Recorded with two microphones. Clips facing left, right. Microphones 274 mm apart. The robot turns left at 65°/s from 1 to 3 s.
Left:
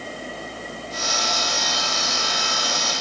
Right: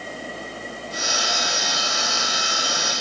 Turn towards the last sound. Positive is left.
No sound to turn to.